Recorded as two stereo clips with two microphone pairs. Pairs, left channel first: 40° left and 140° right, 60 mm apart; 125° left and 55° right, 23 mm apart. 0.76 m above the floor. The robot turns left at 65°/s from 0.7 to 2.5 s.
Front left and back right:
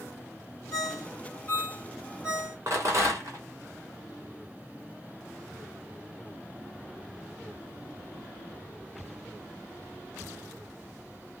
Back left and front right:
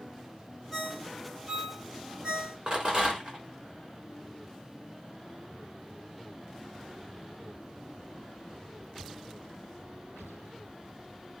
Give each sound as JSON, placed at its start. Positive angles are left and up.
{"t": 0.7, "sound": "a ringtone", "azimuth_deg": 40, "distance_m": 2.0}
{"t": 2.7, "sound": "a rattle", "azimuth_deg": -100, "distance_m": 3.0}